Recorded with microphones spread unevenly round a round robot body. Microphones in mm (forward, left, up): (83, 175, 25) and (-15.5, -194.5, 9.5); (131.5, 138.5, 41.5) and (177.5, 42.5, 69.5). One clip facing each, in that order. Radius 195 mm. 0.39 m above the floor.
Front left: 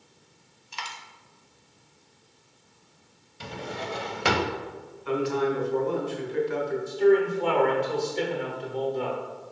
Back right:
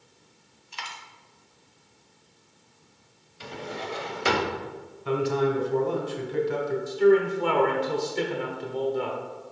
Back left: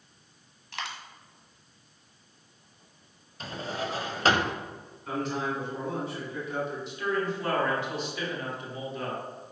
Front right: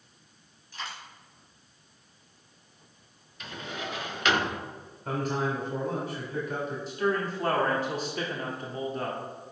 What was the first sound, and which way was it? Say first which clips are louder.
A dropped coin: front left 1 dB, back left 2 dB; 100° left.